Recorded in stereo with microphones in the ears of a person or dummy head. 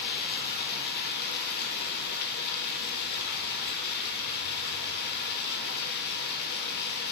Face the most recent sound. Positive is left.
turn(degrees=60)  # may be behind; listen again after turning